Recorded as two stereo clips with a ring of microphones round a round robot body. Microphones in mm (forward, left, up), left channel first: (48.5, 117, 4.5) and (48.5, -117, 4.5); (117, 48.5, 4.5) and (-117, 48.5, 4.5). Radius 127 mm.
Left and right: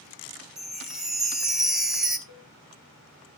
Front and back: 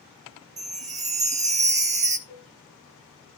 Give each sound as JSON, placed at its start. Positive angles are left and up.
{"t": 0.6, "sound": "a chime", "azimuth_deg": -175, "distance_m": 0.9}
{"t": 2.3, "sound": "a cowbell", "azimuth_deg": 70, "distance_m": 4.0}